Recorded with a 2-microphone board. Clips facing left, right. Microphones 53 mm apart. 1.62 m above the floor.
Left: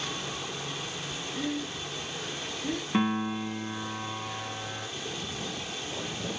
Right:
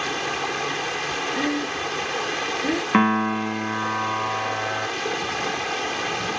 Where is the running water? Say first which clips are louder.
Right 10 dB; 80° right.